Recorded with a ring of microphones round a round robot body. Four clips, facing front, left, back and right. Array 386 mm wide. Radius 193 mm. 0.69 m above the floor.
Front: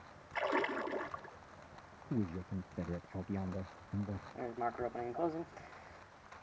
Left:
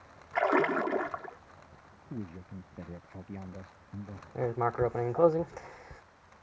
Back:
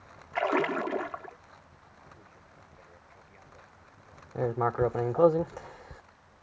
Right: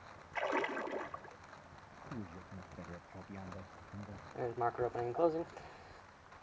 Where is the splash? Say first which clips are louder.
Left 10 dB, back 8 dB; 120° left.